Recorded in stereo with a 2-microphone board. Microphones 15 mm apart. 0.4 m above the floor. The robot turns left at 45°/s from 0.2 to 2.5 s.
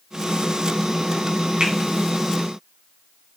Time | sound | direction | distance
1.6 | a finger snap | 70° right (ahead or behind) | 3 m